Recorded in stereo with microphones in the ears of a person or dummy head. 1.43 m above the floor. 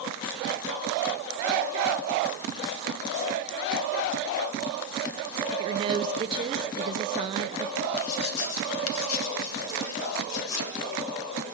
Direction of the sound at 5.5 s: 30° right (ahead or behind).